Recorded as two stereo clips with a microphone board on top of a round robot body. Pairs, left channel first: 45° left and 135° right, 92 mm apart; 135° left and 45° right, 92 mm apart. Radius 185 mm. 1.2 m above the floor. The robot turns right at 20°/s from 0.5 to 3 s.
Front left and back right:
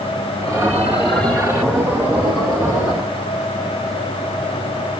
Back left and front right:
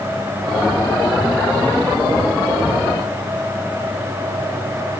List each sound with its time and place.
Only background noise.